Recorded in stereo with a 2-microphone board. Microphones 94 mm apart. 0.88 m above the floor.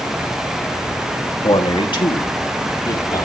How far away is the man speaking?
About 1.5 m.